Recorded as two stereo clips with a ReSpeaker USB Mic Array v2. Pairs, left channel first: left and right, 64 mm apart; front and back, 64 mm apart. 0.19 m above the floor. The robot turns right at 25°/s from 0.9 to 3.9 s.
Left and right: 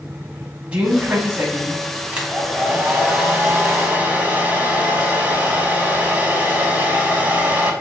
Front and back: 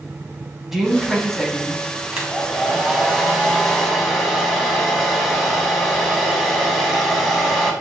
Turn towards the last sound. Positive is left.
turn(degrees=-85)